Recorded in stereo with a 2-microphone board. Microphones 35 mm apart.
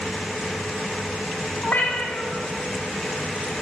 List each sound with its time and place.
1.6 s a cat meowing: 65° left (ahead or behind), 1.0 m